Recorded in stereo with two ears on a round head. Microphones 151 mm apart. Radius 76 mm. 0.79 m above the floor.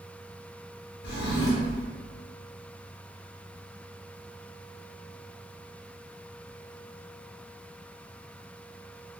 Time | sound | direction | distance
1.0 | a drawer | 65° left (ahead or behind) | 0.8 m